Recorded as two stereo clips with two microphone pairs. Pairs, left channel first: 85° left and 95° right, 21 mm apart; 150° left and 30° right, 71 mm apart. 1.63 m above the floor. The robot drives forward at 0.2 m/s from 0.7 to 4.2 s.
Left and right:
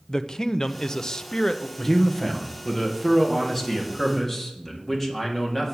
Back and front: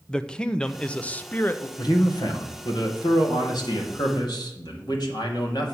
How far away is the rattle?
I don't hear a rattle.